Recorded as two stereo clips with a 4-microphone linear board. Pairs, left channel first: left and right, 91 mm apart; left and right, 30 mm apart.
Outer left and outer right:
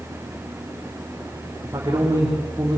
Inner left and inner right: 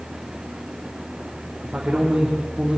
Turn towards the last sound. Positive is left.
turn(degrees=-30)  # may be behind; listen again after turning